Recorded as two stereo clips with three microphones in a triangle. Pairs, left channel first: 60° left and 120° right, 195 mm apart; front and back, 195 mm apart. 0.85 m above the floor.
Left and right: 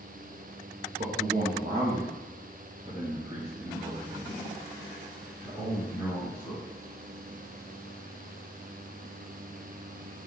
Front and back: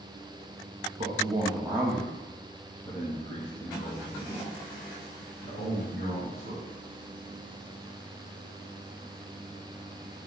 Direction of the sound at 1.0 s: 145° right.